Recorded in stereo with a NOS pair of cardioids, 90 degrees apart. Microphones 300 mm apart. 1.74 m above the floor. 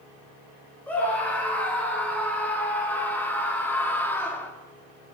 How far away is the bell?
No bell in this recording.